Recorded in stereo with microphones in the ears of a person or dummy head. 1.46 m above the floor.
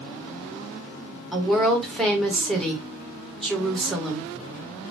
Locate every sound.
1.3 s a woman speaking: 5° left (ahead or behind), 1.4 m